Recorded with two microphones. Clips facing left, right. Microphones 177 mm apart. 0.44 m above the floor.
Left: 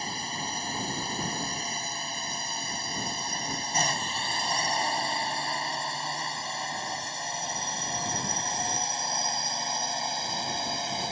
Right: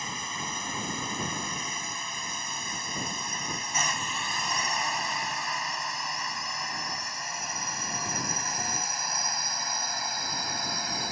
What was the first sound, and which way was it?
A drone, 35° left (ahead or behind).